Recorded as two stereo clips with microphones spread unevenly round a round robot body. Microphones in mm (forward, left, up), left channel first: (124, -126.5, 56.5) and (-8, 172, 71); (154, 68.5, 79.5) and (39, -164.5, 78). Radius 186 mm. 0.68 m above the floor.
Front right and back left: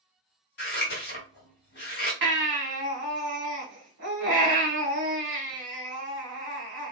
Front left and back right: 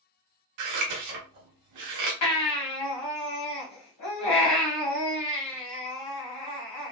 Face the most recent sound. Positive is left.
turn(degrees=60)